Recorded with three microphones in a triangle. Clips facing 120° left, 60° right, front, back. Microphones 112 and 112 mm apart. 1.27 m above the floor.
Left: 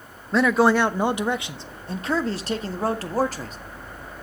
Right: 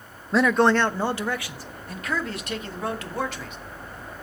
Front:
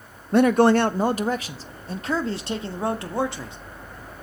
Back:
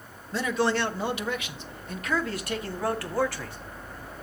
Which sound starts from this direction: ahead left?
A man speaking, at 0.3 s.